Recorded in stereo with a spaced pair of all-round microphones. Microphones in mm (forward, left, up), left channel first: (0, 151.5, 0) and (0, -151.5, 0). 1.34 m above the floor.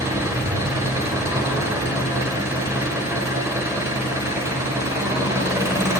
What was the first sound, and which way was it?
An engine running, 10° right (ahead or behind).